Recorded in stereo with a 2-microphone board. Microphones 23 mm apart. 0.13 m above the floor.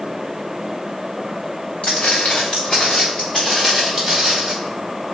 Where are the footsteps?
70° left (ahead or behind), 0.8 m; by 4.5 s 10° right (ahead or behind), 1.4 m.